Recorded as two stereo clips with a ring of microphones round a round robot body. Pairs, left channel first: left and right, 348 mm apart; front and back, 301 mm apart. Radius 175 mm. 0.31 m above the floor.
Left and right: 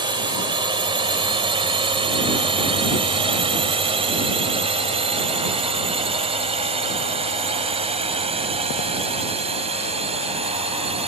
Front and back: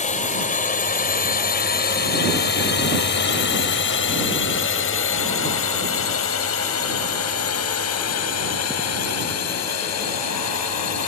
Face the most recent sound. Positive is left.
turn(degrees=-20)